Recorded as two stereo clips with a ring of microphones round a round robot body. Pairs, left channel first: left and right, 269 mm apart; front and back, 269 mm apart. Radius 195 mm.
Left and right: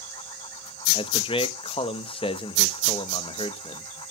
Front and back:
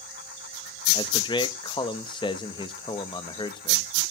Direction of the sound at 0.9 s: 50° left.